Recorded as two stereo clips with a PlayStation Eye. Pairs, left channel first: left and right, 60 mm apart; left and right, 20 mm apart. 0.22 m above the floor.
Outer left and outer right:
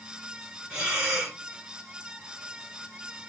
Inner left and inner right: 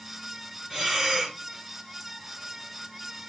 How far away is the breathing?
About 2.5 m.